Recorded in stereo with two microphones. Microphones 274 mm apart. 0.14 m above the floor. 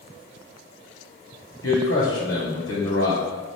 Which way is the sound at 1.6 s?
55° left (ahead or behind).